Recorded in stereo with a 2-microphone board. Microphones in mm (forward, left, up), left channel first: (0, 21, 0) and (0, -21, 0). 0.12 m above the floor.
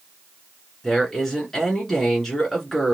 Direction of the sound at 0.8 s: 5° left (ahead or behind).